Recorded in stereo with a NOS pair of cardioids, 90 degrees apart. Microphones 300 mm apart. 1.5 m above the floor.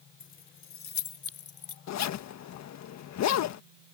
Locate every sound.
0.2 s keys jangling: 40° left; by 1.8 s 55° left
1.9 s a zipper: 65° left